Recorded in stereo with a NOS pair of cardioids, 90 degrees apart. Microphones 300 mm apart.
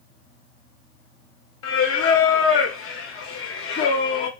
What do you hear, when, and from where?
1.6 s singing: 50° left, 0.8 m